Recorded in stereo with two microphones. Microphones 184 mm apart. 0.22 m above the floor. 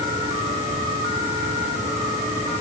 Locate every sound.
Only background noise.